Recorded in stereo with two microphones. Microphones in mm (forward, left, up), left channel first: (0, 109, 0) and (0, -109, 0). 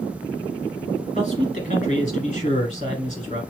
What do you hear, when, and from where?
1.1 s a man speaking: 35° left (ahead or behind), 2 m